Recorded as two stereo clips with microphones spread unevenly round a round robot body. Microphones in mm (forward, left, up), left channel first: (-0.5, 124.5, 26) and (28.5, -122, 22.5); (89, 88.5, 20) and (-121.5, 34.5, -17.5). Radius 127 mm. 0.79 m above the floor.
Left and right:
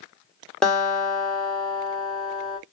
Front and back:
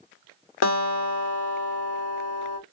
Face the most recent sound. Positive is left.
turn(degrees=10)